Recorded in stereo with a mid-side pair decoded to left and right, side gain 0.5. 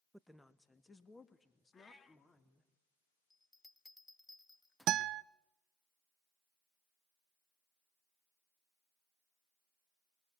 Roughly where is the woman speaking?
Ahead.